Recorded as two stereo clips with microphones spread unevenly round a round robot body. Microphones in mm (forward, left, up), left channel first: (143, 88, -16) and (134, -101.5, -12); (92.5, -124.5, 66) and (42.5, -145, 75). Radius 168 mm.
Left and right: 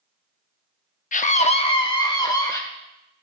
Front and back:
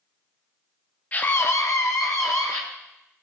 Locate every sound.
1.1 s a scream: 60° left, 0.8 m; by 2.6 s 15° left, 2 m